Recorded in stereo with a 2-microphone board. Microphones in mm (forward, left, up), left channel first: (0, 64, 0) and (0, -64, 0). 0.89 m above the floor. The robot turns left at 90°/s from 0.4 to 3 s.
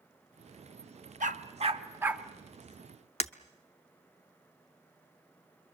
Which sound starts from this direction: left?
Breaking glass, at 3.2 s.